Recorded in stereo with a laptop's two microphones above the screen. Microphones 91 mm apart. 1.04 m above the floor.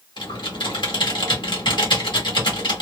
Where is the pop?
No pop in this recording.